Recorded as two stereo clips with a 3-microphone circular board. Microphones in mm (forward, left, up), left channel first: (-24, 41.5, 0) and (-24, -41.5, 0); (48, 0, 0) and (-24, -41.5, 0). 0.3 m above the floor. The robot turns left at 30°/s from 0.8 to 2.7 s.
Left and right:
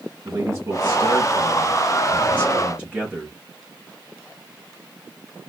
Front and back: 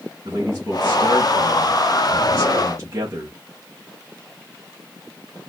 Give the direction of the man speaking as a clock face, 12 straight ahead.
4 o'clock.